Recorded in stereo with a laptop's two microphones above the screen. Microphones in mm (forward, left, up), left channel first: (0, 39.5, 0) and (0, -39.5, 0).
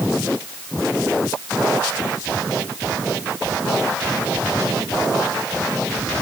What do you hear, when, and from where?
Only background noise.